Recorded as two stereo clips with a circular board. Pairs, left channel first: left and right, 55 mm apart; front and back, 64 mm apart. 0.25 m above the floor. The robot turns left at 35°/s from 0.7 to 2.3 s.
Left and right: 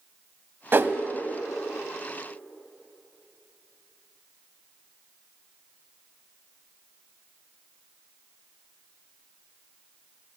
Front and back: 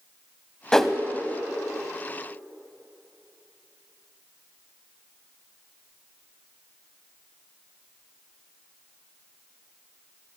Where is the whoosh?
75° right, 0.5 m; by 0.9 s 85° right, 0.5 m.